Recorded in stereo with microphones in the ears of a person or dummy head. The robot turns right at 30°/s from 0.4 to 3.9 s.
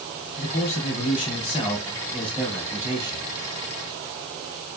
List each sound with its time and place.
0.4 s a man speaking: 120° left, 2 m; by 3.2 s 155° right, 2 m